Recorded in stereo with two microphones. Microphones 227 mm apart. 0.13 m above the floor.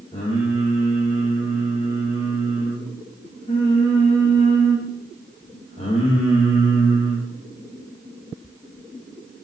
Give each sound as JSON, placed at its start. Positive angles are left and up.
{"t": 0.1, "sound": "singing", "side_deg": 25, "distance_m": 8.0}